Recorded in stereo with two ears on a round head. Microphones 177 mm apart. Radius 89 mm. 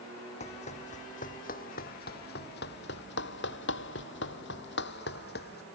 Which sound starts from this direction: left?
Running footsteps, at 0.4 s.